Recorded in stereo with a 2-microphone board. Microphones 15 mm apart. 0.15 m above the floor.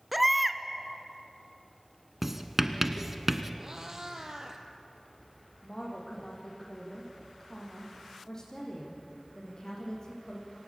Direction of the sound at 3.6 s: 35° right (ahead or behind).